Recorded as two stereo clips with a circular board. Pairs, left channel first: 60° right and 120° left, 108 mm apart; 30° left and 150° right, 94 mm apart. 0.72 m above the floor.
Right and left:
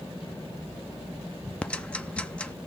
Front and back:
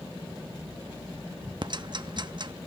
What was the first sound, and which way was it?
Ticking, 135° right.